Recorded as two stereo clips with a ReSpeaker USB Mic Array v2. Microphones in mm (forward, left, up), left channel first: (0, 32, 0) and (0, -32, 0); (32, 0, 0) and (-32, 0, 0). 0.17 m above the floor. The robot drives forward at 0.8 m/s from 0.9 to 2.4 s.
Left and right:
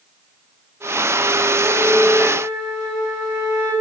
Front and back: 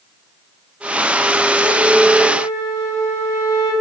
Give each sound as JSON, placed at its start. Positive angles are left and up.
{"t": 1.6, "sound": "a flute", "azimuth_deg": 170, "distance_m": 1.9}